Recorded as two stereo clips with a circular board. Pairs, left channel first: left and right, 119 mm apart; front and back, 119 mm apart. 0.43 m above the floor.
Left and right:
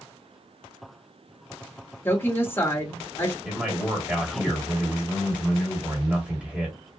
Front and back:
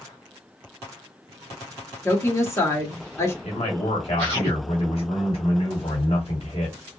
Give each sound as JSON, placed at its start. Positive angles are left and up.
{"t": 2.0, "sound": "a woman speaking", "azimuth_deg": 40, "distance_m": 1.0}
{"t": 3.4, "sound": "a man speaking", "azimuth_deg": -10, "distance_m": 1.9}